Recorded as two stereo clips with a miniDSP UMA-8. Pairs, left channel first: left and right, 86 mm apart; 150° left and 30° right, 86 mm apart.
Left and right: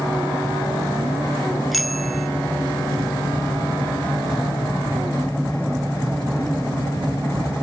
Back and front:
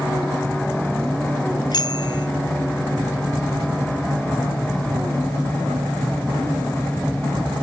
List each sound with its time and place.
1.7 s a bicycle bell: straight behind